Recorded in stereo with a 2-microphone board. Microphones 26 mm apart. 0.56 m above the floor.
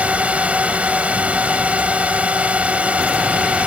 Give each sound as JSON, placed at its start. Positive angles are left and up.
{"t": 0.0, "sound": "a drone", "side_deg": -60}